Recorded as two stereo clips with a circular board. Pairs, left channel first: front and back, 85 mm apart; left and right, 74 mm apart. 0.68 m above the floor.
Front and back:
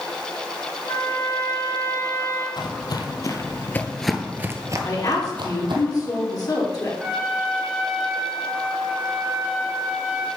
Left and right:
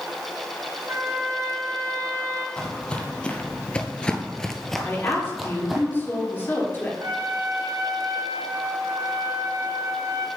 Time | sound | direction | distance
0.9 | a trumpet | 40° right | 2.5 m
2.6 | footsteps | 15° left | 1.3 m
4.8 | a woman speaking | 35° left | 1.8 m
7.0 | a trumpet | 105° right | 1.1 m